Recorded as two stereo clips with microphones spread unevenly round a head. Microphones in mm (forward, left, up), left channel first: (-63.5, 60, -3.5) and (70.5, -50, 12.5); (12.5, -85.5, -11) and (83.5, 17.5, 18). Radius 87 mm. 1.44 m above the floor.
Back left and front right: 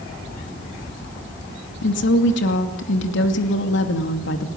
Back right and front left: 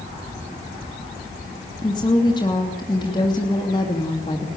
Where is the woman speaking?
165° left, 2.5 m.